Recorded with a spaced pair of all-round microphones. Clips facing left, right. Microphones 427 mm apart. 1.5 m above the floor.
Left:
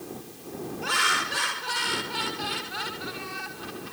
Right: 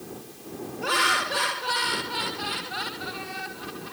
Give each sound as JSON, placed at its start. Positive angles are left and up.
{"t": 0.8, "sound": "laughter", "side_deg": -70}